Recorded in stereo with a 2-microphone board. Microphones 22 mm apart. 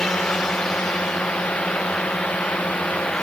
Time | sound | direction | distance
0.0 | a drone | 80° left | ?